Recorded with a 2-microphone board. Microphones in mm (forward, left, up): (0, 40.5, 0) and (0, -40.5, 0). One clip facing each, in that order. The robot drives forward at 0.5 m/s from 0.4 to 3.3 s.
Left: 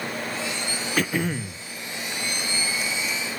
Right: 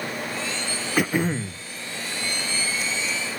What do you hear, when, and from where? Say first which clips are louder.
1.0 s throat clearing: right 3 dB; 10° right (ahead or behind), 0.9 m; by 1.6 s 15° right (ahead or behind), 0.6 m